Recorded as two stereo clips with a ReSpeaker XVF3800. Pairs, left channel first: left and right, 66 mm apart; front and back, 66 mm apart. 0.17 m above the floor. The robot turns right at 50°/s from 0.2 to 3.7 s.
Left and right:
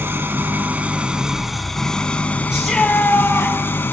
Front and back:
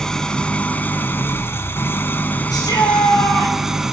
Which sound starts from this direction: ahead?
A shout, at 2.5 s.